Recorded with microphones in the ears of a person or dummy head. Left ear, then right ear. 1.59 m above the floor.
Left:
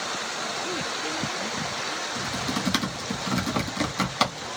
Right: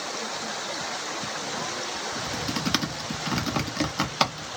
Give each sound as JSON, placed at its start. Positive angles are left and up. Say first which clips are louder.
{"t": 2.1, "sound": "typing on a keyboard", "louder": "left 1 dB", "side_deg": -20, "distance_m": 0.8}